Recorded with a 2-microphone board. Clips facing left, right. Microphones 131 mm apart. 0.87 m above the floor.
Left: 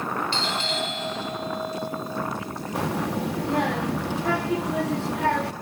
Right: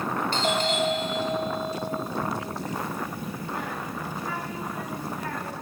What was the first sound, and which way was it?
A doorbell, 45° right (ahead or behind).